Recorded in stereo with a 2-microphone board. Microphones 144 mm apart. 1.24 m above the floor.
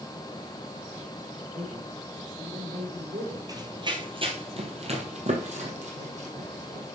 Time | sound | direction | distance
1.5 | a man speaking | 80° right | 5 m
3.5 | running footsteps | 30° right (ahead or behind) | 1.5 m